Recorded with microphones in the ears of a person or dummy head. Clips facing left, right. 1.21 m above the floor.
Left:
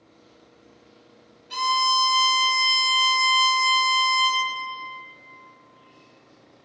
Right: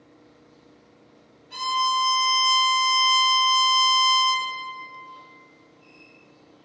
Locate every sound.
1.5 s a violin: 75° left (ahead or behind), 1.7 m